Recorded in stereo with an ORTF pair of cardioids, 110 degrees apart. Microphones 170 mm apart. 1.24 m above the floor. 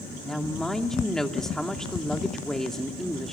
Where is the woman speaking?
5° left, 2.5 m.